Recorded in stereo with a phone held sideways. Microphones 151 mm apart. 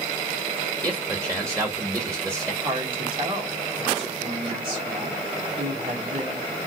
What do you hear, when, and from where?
0.8 s a man speaking: 20° right (ahead or behind), 1.3 m
2.6 s a woman speaking: 35° right (ahead or behind), 1.8 m